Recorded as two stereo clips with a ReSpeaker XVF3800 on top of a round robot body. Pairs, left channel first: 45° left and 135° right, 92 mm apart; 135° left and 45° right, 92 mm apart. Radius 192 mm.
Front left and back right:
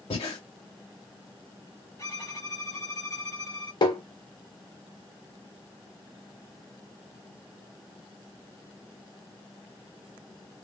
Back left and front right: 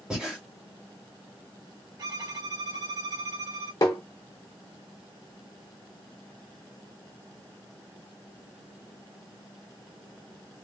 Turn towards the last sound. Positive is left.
turn(degrees=85)